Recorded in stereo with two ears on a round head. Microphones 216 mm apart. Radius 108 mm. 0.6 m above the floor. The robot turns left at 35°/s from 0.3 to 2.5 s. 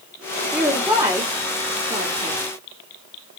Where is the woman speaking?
5° right (ahead or behind), 1.4 m; by 2.4 s 30° right (ahead or behind), 1.4 m.